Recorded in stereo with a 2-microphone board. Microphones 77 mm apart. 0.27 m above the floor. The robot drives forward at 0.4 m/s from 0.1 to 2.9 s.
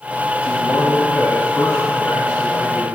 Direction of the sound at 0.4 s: 50° left (ahead or behind).